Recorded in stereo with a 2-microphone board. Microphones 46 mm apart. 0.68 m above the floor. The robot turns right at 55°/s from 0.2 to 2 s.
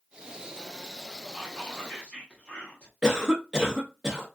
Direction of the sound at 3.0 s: 10° right (ahead or behind).